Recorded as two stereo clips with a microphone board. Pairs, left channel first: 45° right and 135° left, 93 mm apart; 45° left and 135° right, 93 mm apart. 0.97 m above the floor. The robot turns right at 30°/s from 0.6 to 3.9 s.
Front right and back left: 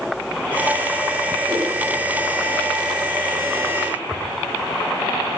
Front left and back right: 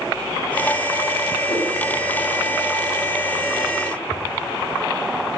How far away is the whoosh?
About 0.6 m.